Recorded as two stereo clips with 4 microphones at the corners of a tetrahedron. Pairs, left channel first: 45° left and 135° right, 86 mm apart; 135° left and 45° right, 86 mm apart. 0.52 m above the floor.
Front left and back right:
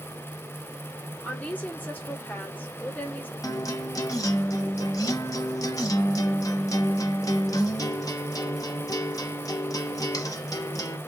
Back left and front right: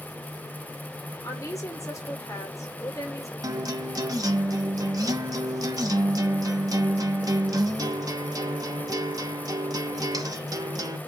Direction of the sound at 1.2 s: 105° left.